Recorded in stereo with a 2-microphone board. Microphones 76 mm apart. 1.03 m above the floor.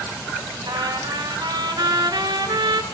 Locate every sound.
0.7 s a trumpet: 70° right (ahead or behind), 1.4 m